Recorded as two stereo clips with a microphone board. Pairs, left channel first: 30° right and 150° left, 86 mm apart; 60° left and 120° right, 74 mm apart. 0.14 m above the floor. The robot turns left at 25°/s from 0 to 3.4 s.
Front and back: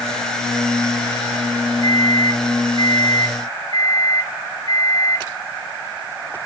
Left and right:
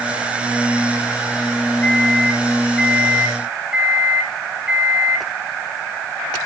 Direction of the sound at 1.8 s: 10° right.